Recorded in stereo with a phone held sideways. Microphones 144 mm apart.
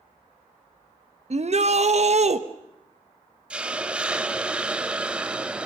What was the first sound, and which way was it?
A shout, 55° right (ahead or behind).